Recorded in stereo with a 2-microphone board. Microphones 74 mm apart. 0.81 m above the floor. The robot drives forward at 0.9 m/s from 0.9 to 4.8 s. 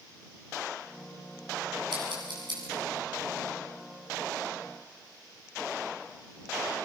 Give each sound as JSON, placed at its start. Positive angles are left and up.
{"t": 1.9, "sound": "scissors", "side_deg": -85, "distance_m": 7.0}